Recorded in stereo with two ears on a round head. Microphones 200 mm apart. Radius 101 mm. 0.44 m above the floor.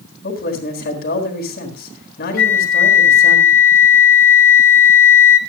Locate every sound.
0.2 s a man speaking: 45° left (ahead or behind), 4 m
2.4 s a flute: 65° left (ahead or behind), 1.1 m